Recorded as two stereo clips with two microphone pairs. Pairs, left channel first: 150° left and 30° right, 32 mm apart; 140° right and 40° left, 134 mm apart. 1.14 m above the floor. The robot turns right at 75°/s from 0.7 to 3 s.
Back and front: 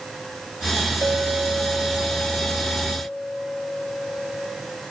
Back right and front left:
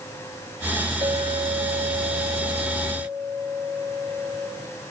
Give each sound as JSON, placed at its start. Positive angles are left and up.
{"t": 1.0, "sound": "a clink", "azimuth_deg": -10, "distance_m": 3.5}